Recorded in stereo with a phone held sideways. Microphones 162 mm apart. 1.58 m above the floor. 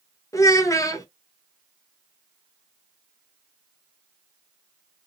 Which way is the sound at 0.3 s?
20° left (ahead or behind).